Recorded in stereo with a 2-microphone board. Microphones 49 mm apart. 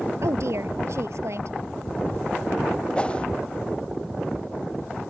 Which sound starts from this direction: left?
A whoosh, at 3.0 s.